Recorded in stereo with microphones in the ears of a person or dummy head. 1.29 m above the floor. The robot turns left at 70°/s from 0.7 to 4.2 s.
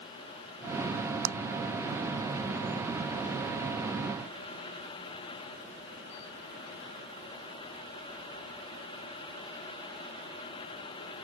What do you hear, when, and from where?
1.2 s a clap: 85° right